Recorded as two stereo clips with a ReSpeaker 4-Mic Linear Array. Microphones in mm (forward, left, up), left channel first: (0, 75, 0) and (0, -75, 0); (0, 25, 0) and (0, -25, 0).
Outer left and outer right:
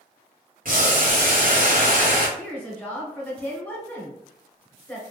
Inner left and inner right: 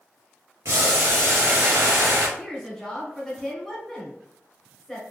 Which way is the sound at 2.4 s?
10° left (ahead or behind).